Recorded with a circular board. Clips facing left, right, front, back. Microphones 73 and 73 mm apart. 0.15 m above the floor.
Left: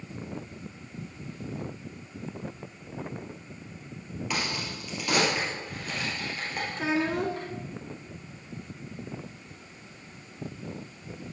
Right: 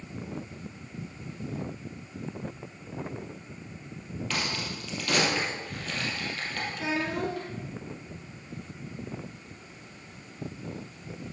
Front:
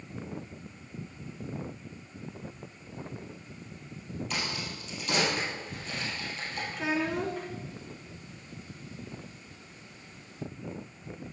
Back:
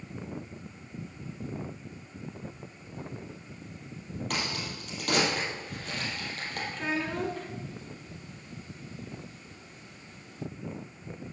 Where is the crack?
160° left, 3.5 m.